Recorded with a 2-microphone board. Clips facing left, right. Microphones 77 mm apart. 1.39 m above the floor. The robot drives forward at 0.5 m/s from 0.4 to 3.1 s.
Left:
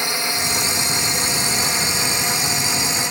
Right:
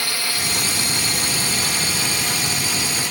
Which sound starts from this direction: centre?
A drone, at 0.0 s.